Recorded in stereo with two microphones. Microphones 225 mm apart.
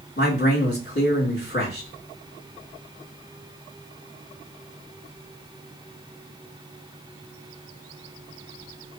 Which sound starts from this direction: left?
A man speaking, at 0.2 s.